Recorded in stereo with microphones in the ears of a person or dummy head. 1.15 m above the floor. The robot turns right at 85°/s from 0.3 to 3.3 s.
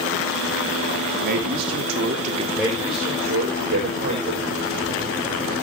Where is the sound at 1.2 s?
130° right, 2.5 m; by 2.4 s 30° right, 2.5 m.